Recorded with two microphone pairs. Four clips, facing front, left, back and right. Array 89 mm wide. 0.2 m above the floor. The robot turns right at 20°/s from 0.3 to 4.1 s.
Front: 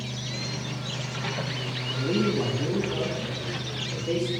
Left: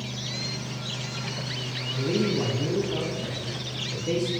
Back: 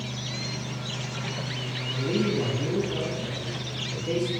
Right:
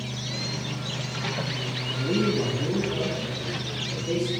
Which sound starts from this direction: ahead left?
A man speaking, at 1.9 s.